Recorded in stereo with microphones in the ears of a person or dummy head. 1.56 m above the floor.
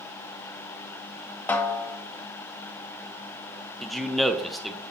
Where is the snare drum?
10° left (ahead or behind), 0.7 m.